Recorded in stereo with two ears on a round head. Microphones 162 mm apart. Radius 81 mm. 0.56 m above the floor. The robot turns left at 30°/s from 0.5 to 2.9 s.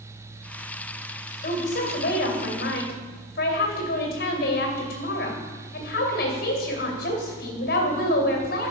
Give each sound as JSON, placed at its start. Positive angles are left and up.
{"t": 1.4, "sound": "a woman speaking", "azimuth_deg": 115, "distance_m": 2.5}